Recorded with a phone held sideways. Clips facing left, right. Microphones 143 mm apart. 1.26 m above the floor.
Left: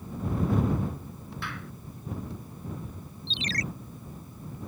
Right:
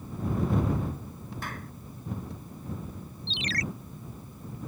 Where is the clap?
45° right (ahead or behind).